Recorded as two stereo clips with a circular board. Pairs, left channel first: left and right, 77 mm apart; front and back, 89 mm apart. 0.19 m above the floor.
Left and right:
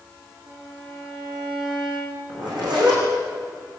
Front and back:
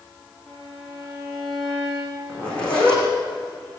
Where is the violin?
90° right, 8 m.